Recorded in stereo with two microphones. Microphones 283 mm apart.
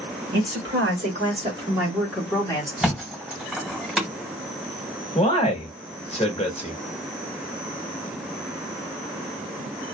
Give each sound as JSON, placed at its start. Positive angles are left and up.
{"t": 0.3, "sound": "a woman speaking", "side_deg": -45, "distance_m": 1.7}
{"t": 2.8, "sound": "a thud", "side_deg": -5, "distance_m": 1.3}
{"t": 5.2, "sound": "a man speaking", "side_deg": 25, "distance_m": 1.0}